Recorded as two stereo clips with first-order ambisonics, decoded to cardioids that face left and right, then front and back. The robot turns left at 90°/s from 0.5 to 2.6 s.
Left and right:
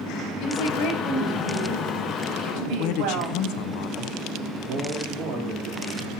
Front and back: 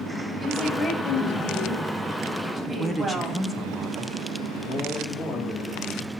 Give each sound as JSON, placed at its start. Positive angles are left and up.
{"t": 0.4, "sound": "a woman speaking", "azimuth_deg": 100, "distance_m": 3.0}
{"t": 2.7, "sound": "a man speaking", "azimuth_deg": 80, "distance_m": 0.7}
{"t": 4.7, "sound": "a man speaking", "azimuth_deg": -65, "distance_m": 3.5}